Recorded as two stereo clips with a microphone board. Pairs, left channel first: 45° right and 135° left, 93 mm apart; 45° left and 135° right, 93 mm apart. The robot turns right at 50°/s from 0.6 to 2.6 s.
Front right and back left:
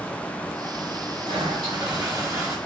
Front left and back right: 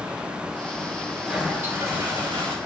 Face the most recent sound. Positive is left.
turn(degrees=-150)